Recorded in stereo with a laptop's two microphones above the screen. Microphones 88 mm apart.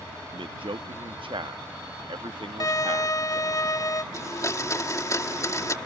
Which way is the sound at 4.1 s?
35° left (ahead or behind).